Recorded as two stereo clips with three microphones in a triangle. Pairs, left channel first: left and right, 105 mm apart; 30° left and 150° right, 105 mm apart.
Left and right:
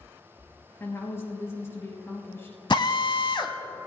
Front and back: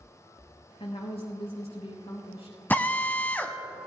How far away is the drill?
About 1.1 m.